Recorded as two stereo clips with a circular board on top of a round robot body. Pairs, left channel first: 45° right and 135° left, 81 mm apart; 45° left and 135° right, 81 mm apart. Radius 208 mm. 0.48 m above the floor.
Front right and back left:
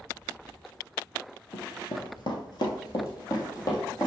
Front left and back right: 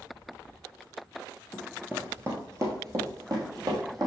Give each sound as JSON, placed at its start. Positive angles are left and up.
{"t": 1.5, "sound": "running footsteps", "azimuth_deg": -35, "distance_m": 0.5}